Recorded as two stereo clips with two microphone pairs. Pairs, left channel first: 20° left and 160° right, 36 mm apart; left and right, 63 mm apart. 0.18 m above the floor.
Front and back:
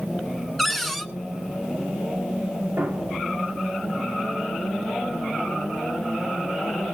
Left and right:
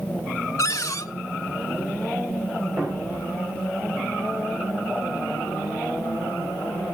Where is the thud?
160° right, 5 m.